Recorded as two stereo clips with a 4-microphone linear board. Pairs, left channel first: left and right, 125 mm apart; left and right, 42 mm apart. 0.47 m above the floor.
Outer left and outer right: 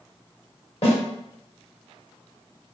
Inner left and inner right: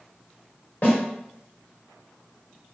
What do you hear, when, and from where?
0.8 s a snare drum: 55° left (ahead or behind), 1.5 m